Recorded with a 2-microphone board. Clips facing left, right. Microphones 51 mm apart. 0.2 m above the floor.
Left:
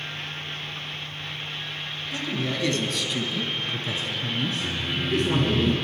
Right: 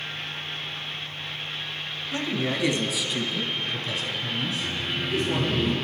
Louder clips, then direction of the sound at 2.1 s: Right 2 dB; 30° right (ahead or behind).